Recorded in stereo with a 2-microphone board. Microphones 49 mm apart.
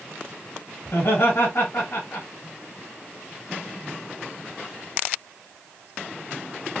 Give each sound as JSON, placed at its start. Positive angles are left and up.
{"t": 0.8, "sound": "laughter", "side_deg": 70, "distance_m": 3.0}